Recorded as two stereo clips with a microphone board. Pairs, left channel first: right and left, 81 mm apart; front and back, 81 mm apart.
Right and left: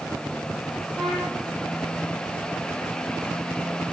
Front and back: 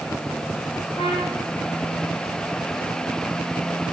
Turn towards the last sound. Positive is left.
turn(degrees=-5)